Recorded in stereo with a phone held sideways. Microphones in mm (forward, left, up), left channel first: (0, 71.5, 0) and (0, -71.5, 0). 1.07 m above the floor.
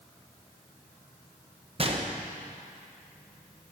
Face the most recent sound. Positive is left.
turn(degrees=-40)  # may be behind; listen again after turning